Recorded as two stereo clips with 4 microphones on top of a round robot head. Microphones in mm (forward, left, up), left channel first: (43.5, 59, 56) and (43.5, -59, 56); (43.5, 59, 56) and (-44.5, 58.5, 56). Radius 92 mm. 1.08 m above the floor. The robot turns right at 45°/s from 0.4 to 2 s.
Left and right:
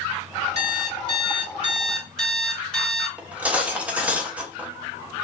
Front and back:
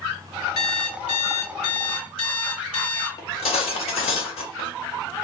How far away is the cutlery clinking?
About 1.0 m.